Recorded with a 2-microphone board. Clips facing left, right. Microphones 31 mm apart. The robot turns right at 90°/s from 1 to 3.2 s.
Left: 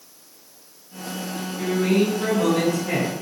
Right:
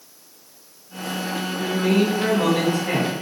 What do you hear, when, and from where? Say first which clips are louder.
1.6 s a man speaking: even; 150° left, 1.4 m; by 3.1 s 70° right, 1.4 m